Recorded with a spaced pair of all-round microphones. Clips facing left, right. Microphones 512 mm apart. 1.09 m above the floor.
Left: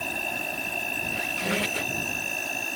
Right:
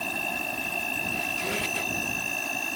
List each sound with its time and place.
0.0 s an insect: 20° right (ahead or behind)
1.1 s a squeak: 85° left